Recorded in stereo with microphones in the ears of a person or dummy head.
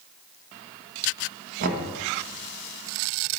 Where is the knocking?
45° right (ahead or behind), 1.5 m.